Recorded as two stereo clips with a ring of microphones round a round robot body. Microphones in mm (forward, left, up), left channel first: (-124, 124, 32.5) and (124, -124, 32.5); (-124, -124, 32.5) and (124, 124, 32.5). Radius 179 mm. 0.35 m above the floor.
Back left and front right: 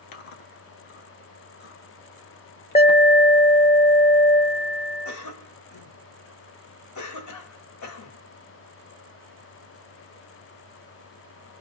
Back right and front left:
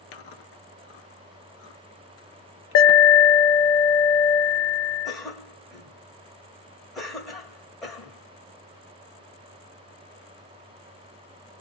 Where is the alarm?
160° right, 0.6 m.